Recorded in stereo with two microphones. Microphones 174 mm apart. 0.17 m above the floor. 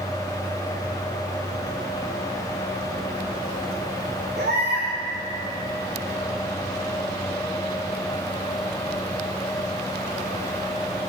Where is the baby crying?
75° right (ahead or behind), 5.5 m.